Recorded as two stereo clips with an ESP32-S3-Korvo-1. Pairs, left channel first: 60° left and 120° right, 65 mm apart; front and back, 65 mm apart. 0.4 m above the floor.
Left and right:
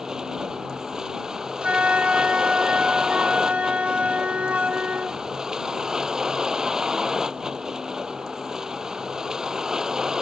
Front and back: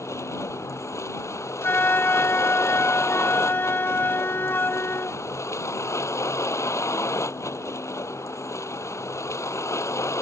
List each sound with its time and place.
0.0 s a vehicle: 40° right
1.6 s a flute: 55° right